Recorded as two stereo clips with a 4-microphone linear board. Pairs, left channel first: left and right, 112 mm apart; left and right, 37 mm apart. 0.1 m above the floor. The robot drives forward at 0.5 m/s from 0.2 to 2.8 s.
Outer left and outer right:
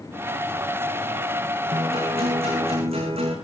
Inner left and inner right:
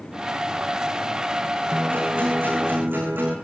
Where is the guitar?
70° right (ahead or behind), 8 m.